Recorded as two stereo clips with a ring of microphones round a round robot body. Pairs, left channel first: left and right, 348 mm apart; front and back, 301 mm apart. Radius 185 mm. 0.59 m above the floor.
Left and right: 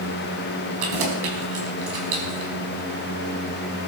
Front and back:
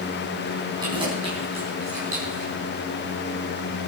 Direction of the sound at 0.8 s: 100° right.